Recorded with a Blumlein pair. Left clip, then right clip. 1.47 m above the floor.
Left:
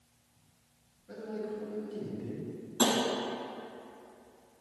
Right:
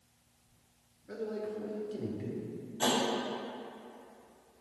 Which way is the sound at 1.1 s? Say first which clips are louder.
Right 1 dB; 15° right.